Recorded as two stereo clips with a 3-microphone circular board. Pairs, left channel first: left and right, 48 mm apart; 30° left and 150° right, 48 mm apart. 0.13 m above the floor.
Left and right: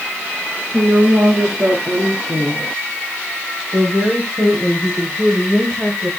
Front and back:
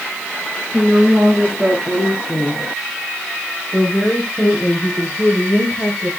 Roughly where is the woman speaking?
Right.